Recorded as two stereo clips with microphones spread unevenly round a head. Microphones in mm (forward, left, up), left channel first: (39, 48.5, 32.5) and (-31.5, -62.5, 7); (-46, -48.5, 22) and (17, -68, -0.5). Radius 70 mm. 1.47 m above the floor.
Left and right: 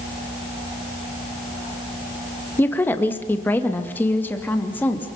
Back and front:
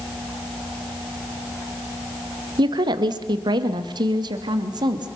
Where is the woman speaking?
20° right, 1.7 m.